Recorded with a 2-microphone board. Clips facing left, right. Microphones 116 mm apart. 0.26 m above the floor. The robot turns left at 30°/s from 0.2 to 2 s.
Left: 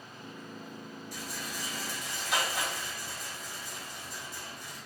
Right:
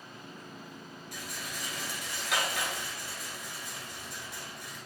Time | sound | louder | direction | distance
1.1 | a rattle | left 1 dB | 60° right (ahead or behind) | 1.4 m